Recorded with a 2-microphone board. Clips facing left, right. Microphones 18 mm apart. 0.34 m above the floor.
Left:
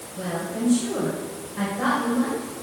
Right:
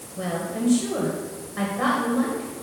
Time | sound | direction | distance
0.2 | a woman speaking | 35° right (ahead or behind) | 1.4 m